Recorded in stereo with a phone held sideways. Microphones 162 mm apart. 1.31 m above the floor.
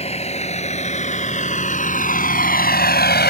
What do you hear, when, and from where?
0.0 s a vehicle: 40° left (ahead or behind); by 3.3 s 90° left